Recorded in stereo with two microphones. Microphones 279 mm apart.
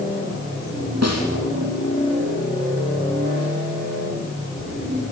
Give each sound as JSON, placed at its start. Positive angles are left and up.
{"t": 1.0, "sound": "a snare drum", "side_deg": -65, "distance_m": 6.0}